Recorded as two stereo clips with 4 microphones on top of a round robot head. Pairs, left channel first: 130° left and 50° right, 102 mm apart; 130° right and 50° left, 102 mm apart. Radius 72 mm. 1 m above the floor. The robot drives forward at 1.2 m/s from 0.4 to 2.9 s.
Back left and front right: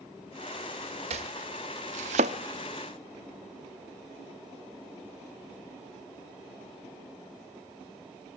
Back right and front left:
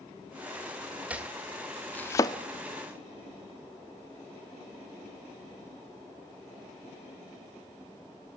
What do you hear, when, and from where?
1.1 s chopping: 25° right, 1.9 m; by 2.4 s 80° right, 0.9 m